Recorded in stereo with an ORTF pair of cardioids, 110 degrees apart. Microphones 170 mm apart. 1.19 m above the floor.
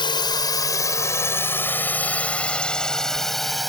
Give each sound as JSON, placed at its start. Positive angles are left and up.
{"t": 0.0, "sound": "a drone", "azimuth_deg": 30}